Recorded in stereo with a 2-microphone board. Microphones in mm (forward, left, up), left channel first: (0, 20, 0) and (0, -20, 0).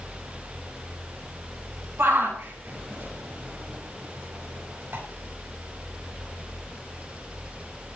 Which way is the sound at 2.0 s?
80° right.